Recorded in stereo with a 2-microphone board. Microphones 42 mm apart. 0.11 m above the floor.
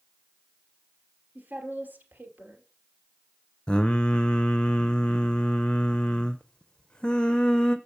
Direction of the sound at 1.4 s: 50° right (ahead or behind).